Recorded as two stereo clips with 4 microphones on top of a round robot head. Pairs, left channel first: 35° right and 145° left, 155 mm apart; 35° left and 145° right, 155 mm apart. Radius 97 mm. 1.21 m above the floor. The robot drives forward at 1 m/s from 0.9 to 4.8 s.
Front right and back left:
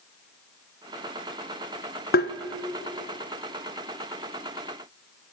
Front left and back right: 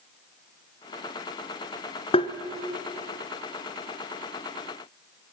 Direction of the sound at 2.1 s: 20° right.